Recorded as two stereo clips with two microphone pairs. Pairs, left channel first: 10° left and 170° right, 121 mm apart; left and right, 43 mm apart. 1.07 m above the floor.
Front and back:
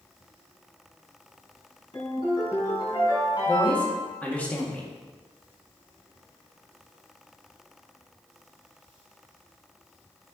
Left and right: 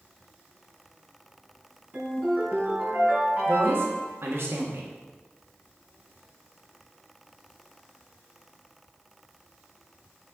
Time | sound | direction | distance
1.9 | a ringtone | 40° right | 4 m
3.5 | a woman speaking | 70° right | 2.0 m